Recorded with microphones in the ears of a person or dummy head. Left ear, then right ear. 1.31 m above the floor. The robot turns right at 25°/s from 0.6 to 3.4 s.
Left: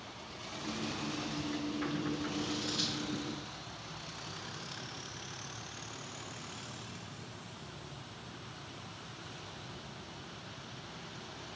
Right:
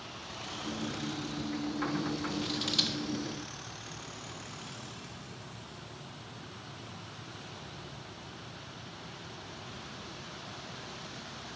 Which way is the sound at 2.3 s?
30° right (ahead or behind).